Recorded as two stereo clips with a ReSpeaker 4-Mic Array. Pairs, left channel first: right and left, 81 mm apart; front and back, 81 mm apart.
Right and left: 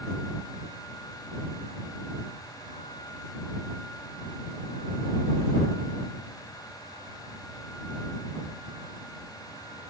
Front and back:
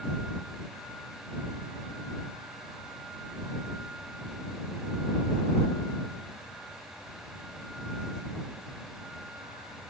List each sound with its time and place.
Only background noise.